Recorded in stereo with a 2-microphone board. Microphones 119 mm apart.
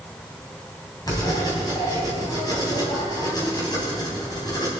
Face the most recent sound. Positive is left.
turn(degrees=35)  # may be behind; listen again after turning